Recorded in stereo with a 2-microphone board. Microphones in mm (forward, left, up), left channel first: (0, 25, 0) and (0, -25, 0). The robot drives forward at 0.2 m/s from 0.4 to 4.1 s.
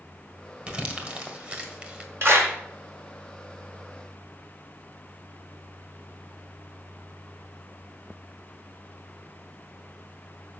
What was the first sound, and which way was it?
Crumpling, 30° right (ahead or behind).